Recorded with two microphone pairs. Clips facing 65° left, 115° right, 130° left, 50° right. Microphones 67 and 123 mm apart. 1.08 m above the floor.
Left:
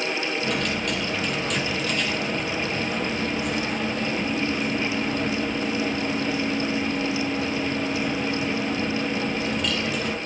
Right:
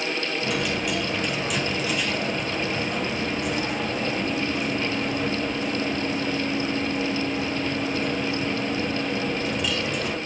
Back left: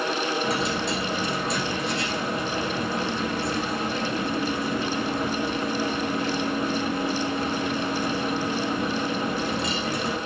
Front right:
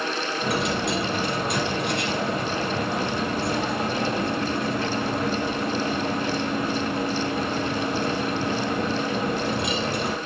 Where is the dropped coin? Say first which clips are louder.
Even, front right 1 dB; 30° right, 3.5 m.